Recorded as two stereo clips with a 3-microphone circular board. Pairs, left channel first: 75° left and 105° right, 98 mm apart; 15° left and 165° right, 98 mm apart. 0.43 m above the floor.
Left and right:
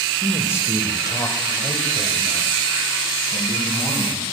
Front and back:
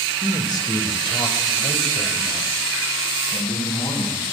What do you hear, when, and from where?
0.2 s a man speaking: 20° left, 1.2 m; by 4.2 s 45° left, 3 m